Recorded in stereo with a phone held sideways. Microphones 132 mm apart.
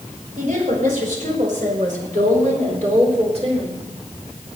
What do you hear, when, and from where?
0.4 s a woman speaking: 80° right, 5 m; by 3.8 s 45° right (ahead or behind), 3.5 m